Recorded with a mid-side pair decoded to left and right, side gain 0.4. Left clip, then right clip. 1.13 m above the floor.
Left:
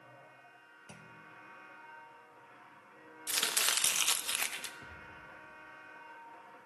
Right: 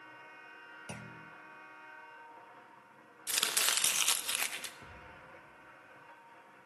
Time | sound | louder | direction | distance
0.9 | a clunk | right 3 dB | 60° right | 0.6 m
3.3 | chopping | even | 5° right | 1.3 m
4.8 | a thud | left 2 dB | 10° right | 8.5 m